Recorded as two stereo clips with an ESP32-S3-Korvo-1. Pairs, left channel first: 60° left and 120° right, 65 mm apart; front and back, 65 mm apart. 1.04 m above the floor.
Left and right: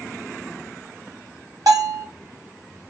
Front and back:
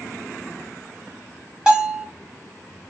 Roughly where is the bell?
Right.